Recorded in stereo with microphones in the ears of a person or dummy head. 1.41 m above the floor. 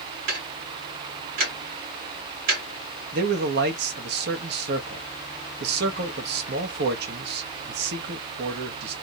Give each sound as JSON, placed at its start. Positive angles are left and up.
{"t": 0.3, "sound": "ticking", "side_deg": -65, "distance_m": 1.7}
{"t": 3.1, "sound": "a man speaking", "side_deg": -65, "distance_m": 1.2}